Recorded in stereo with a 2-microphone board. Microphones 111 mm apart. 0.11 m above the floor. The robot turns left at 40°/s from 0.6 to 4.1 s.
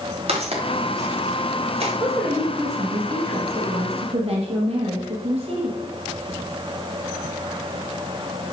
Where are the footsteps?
65° right (ahead or behind), 3.5 m; by 1.9 s 60° right (ahead or behind), 4.5 m.